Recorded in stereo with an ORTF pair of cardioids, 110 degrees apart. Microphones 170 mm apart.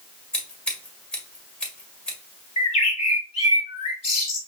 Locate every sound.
0.3 s scissors: 5° left, 2 m
2.6 s a bird: 40° left, 2.5 m